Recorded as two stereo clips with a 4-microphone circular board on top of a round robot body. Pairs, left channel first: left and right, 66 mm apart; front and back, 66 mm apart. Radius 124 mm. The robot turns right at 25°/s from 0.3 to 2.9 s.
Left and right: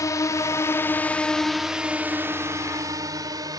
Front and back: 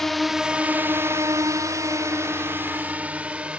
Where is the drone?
85° left; by 3.6 s 110° right.